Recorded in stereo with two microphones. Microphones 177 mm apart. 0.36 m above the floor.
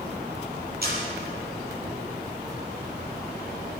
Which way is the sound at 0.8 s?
65° right (ahead or behind).